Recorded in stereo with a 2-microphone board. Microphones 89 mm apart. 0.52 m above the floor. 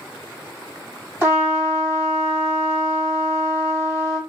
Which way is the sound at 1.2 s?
25° right (ahead or behind).